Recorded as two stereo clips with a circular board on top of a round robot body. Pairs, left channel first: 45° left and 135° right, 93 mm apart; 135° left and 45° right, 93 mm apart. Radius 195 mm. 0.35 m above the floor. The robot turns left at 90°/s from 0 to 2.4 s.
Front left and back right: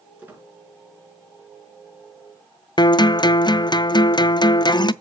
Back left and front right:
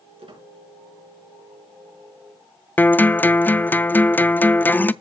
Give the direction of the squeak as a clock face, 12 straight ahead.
2 o'clock.